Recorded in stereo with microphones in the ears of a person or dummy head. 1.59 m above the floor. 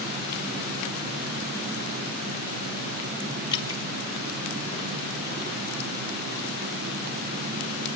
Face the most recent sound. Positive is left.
turn(degrees=25)  # may be behind; listen again after turning